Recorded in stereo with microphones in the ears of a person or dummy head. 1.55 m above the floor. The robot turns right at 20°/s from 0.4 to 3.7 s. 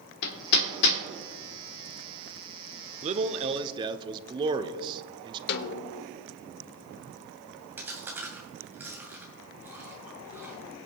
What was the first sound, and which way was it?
Hammering, 55° left (ahead or behind).